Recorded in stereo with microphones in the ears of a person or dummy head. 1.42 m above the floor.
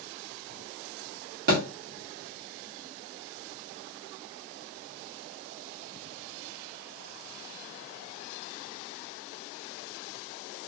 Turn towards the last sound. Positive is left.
turn(degrees=-50)  # may be behind; listen again after turning